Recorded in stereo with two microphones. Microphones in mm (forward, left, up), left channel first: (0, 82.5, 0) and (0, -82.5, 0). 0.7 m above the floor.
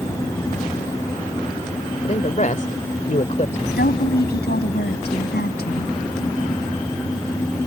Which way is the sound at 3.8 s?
80° left.